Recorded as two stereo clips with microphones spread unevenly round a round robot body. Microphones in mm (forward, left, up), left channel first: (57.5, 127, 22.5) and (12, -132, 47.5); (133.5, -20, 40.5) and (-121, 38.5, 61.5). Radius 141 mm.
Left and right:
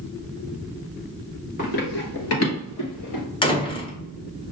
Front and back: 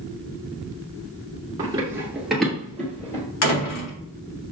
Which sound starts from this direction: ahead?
A door slam, at 3.4 s.